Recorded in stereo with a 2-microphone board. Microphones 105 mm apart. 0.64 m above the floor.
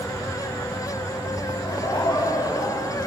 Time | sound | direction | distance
1.6 | laughter | 45° left (ahead or behind) | 4.5 m